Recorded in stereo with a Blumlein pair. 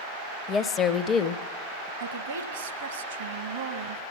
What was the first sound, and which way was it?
A woman speaking, 25° left.